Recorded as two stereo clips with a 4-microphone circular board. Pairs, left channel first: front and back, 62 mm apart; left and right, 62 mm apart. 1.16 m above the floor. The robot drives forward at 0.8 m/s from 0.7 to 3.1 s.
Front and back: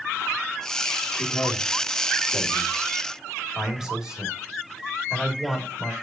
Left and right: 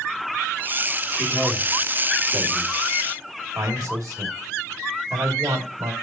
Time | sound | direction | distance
1.2 | a man speaking | 60° right | 2.5 m